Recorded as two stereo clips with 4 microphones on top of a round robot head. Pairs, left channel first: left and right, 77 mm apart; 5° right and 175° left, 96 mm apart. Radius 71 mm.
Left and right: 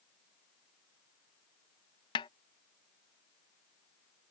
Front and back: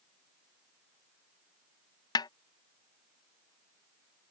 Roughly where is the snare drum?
Ahead left.